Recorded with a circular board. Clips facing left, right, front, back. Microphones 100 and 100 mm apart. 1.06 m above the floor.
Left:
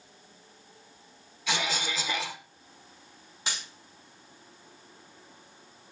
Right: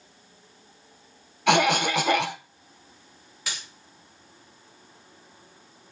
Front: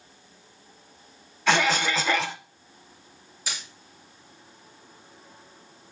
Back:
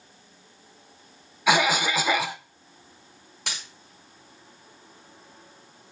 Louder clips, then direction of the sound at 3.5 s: Left 1 dB, even; 155° left.